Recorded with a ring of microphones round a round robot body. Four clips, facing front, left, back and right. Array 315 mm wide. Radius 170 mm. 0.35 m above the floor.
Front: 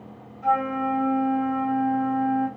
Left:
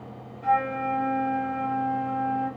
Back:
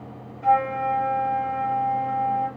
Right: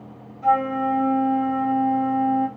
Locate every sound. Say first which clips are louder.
0.4 s a flute: right 4 dB, back 3 dB; 120° right, 5 m